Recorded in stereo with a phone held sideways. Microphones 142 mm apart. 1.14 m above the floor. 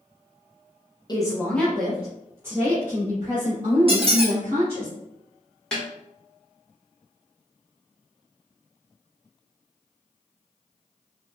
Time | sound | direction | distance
1.1 | a woman speaking | 30° left (ahead or behind) | 0.6 m
3.9 | a squeak | 40° right (ahead or behind) | 0.7 m
5.7 | a snare drum | 5° left (ahead or behind) | 1.3 m